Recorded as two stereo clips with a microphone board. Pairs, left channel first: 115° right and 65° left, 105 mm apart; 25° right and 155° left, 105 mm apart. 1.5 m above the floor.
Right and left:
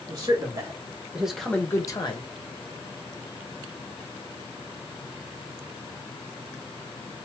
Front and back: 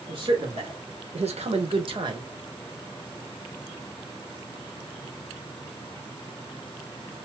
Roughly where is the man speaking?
Behind left.